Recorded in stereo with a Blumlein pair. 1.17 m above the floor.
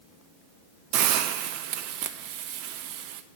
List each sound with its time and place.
0.9 s a hiss: 40° right, 0.8 m